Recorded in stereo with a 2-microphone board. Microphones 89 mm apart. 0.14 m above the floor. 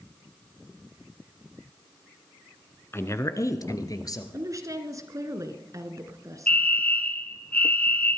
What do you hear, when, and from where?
2.9 s a woman speaking: 30° left (ahead or behind), 1.2 m; by 4.2 s 45° left (ahead or behind), 2 m
4.3 s a woman speaking: 40° right (ahead or behind), 1.7 m
6.5 s a fire alarm: 20° left (ahead or behind), 2 m